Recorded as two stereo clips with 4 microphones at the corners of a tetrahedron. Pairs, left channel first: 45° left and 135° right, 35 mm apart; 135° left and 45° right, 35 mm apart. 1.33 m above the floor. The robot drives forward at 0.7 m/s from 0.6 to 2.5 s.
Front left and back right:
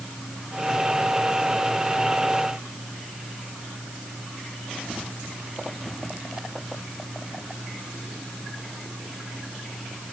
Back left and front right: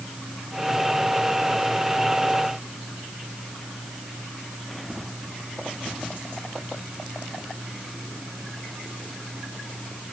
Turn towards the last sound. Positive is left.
No sound to turn to.